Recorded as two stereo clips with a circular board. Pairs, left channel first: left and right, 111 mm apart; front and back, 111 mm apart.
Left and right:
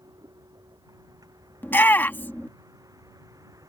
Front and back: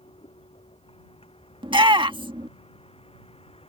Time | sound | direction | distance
0.0 | a vehicle | 35° right | ?
1.6 | a shout | 160° left | ?